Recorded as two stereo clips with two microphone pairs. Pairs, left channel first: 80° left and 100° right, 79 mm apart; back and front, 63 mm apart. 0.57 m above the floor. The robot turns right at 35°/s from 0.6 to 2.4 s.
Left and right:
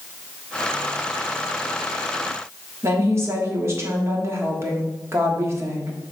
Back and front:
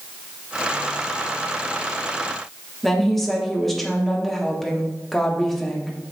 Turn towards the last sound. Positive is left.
turn(degrees=-100)